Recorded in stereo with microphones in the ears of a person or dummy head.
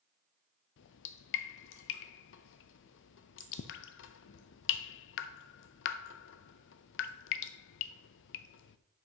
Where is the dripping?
70° left (ahead or behind), 0.6 m.